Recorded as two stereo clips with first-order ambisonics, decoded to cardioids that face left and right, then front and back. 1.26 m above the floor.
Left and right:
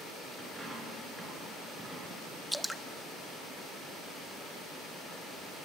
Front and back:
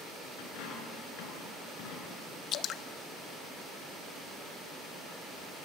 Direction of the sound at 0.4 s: 10° right.